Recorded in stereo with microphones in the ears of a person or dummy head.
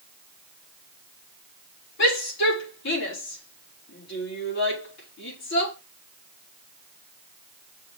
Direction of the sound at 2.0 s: 70° left (ahead or behind).